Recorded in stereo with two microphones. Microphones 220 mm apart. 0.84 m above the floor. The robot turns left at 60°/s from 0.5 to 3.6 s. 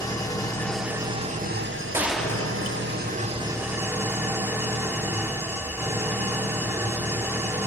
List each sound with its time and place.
0.0 s an engine running: 15° left, 1.0 m; by 7.7 s 170° right, 1.0 m
1.9 s a gunshot: 170° right, 0.5 m; by 3.2 s 115° left, 0.5 m